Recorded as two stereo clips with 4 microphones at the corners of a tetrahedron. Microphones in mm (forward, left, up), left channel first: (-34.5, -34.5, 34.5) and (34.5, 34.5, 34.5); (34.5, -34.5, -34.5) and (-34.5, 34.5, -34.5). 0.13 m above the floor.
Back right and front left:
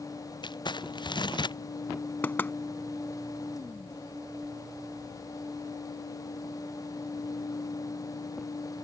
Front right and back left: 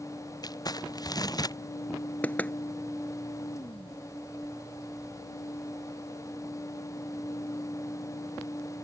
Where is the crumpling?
95° right.